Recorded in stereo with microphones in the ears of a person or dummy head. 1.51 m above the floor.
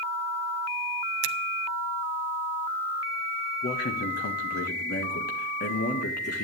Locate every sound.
1.2 s a finger snap: 80° right, 0.7 m
3.6 s a man speaking: 50° left (ahead or behind), 1.6 m